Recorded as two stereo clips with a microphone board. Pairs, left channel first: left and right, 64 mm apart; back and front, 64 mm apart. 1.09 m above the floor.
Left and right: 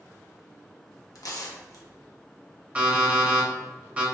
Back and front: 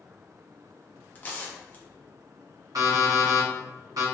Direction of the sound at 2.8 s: 20° right.